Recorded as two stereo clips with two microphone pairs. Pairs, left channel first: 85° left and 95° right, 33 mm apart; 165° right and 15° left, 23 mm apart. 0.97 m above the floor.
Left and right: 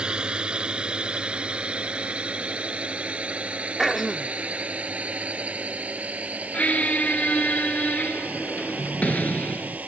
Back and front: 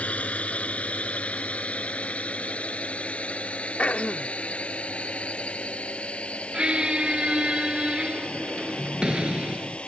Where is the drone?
155° right; by 9.9 s 135° right.